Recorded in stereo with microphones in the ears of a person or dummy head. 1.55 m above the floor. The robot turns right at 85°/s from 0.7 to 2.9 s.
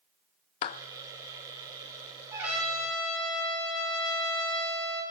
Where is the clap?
30° left (ahead or behind), 0.5 m.